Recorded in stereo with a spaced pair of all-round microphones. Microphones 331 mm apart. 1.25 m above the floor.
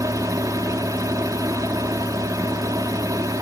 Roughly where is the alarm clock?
No alarm clock in this recording.